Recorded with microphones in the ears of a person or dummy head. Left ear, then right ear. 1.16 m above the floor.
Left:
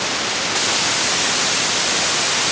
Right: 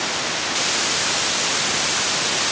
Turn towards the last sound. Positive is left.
No sound to turn to.